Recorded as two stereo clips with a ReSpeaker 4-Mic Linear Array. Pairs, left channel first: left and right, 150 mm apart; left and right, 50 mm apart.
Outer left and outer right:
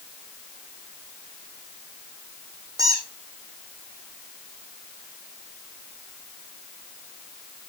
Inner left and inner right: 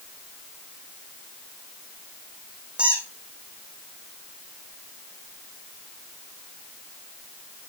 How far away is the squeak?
About 5.5 m.